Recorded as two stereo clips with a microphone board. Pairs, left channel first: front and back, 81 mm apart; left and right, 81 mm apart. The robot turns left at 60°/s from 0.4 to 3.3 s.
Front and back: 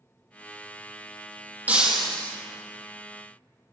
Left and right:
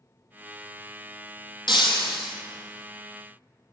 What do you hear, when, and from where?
1.7 s breaking glass: 110° left, 0.9 m; by 2.4 s 65° left, 0.9 m